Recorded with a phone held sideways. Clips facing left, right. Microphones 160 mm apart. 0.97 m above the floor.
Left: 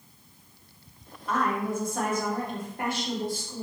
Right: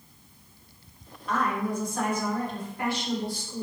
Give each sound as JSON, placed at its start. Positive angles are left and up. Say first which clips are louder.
{"t": 1.3, "sound": "a woman speaking", "louder": "even", "side_deg": 50, "distance_m": 1.6}